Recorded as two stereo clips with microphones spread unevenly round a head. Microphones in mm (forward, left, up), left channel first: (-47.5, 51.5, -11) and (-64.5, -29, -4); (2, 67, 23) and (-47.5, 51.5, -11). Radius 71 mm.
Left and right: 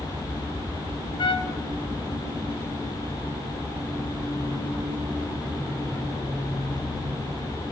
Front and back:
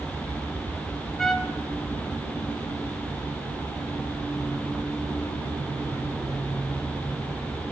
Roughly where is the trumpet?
Left.